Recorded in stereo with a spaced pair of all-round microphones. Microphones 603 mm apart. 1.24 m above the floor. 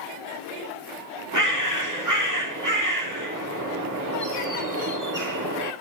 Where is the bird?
30° right (ahead or behind), 2.5 m.